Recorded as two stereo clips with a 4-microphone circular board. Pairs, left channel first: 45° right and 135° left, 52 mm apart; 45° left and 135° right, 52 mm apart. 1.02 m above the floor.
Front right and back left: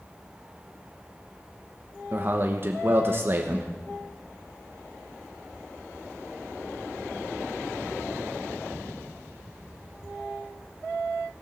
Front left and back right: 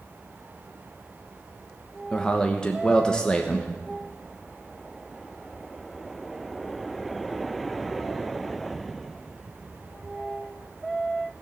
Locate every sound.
2.1 s a man speaking: 110° left, 0.9 m